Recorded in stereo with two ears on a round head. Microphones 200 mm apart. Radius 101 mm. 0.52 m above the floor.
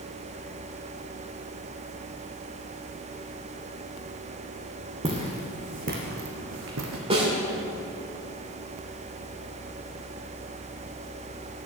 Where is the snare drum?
25° right (ahead or behind), 2 m.